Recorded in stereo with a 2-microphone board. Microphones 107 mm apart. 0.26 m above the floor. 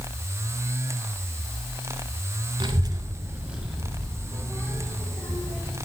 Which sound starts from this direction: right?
A child speaking, at 2.6 s.